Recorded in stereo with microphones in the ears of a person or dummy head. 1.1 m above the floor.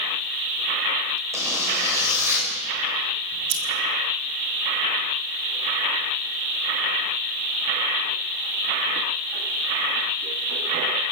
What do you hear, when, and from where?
1.3 s a zipper: 20° right (ahead or behind), 5 m
3.3 s scissors: 85° right, 4.5 m